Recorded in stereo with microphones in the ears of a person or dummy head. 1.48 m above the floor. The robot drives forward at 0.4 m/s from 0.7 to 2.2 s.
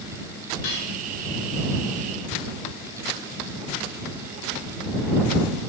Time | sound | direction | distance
0.6 | cutlery clinking | 80° left | 5 m